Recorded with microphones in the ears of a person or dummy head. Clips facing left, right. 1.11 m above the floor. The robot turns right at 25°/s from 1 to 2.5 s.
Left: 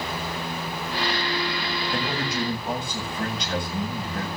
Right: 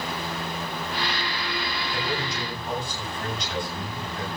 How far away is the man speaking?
About 8 m.